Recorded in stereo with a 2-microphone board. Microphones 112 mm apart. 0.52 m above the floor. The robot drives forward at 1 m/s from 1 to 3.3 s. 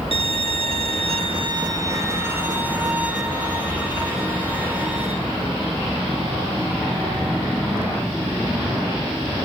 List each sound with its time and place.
0.1 s a violin: 60° right (ahead or behind), 0.6 m; by 5.1 s 15° right (ahead or behind), 2.5 m